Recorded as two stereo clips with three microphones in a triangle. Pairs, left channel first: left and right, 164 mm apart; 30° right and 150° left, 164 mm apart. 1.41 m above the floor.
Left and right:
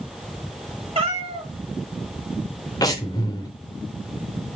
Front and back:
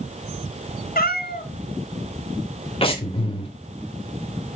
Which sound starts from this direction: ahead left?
Breathing, at 2.8 s.